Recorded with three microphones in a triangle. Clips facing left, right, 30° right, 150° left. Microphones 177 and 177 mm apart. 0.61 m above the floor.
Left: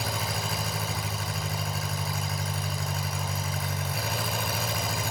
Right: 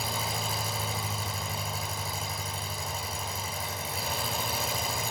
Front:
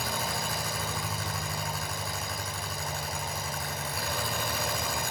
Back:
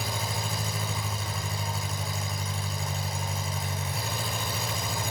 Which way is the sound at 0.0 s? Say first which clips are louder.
Left 1 dB, even; 85° left.